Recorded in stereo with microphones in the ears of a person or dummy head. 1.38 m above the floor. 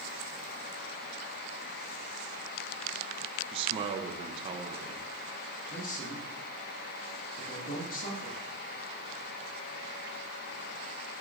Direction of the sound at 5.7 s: 45° left (ahead or behind).